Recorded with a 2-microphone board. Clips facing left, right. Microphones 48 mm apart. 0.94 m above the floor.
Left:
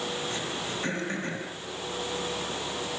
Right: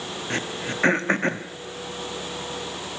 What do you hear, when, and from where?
0.3 s throat clearing: 55° right (ahead or behind), 1.2 m